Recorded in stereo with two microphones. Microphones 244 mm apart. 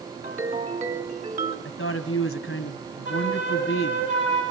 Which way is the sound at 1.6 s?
60° left (ahead or behind).